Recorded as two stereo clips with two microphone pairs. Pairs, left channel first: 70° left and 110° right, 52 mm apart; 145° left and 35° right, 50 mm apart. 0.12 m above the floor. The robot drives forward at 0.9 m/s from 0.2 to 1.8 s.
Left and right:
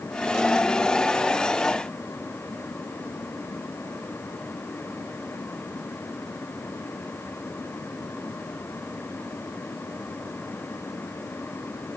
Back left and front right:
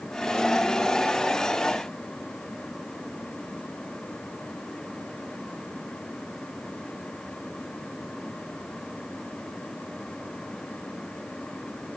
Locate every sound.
Only background noise.